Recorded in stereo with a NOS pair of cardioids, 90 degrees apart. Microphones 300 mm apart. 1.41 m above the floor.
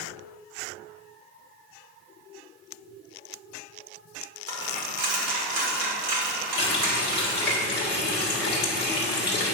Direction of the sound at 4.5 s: 60° right.